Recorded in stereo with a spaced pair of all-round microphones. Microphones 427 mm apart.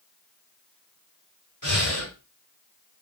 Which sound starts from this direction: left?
Breathing, at 1.6 s.